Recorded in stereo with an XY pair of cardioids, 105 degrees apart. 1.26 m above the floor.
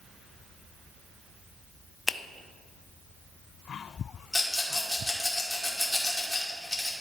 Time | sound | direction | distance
2.1 | a finger snap | 20° left | 0.6 m
4.3 | a rattle | 15° left | 2.5 m